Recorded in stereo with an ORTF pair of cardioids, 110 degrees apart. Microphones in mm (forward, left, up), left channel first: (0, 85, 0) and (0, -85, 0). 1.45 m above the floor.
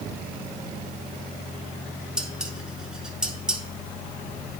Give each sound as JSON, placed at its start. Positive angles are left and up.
{"t": 2.2, "sound": "dishes clattering", "azimuth_deg": -5, "distance_m": 1.2}